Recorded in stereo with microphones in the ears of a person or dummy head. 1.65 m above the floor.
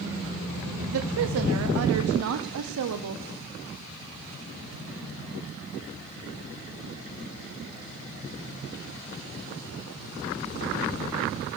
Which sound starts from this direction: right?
A woman speaking, at 0.8 s.